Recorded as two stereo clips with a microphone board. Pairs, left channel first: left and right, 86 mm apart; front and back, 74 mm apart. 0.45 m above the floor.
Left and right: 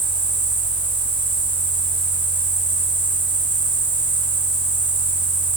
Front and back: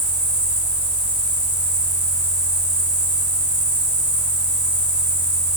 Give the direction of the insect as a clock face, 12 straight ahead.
9 o'clock.